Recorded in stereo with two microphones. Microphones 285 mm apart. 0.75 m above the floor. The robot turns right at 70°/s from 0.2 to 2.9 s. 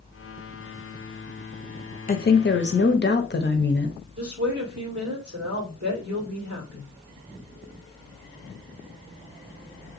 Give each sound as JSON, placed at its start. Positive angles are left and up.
{"t": 2.1, "sound": "a woman speaking", "azimuth_deg": 50, "distance_m": 0.6}
{"t": 4.2, "sound": "a woman speaking", "side_deg": -55, "distance_m": 2.0}